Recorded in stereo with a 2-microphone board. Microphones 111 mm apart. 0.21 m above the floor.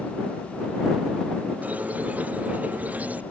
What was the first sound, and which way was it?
A squeak, 15° right (ahead or behind).